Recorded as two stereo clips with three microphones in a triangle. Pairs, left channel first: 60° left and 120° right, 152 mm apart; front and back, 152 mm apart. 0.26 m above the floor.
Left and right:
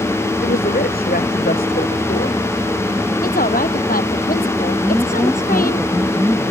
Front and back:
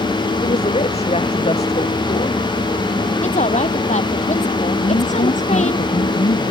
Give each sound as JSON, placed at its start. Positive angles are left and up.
{"t": 0.4, "sound": "a woman speaking", "azimuth_deg": 45}
{"t": 3.2, "sound": "a woman speaking", "azimuth_deg": 40}
{"t": 4.8, "sound": "a woman speaking", "azimuth_deg": -35}